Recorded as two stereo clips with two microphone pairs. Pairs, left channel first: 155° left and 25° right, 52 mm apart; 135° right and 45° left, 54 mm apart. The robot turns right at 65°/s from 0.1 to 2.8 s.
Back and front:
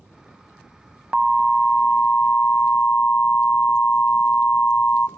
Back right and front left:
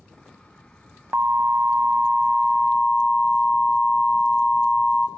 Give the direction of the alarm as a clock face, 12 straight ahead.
10 o'clock.